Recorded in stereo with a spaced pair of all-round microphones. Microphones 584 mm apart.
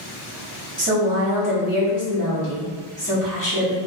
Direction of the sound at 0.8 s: 30° right (ahead or behind).